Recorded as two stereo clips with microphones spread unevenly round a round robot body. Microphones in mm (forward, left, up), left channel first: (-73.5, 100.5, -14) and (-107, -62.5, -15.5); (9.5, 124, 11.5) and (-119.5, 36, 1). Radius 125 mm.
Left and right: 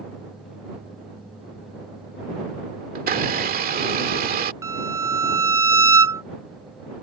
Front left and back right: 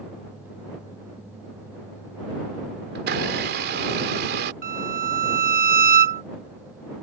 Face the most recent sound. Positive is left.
turn(degrees=-175)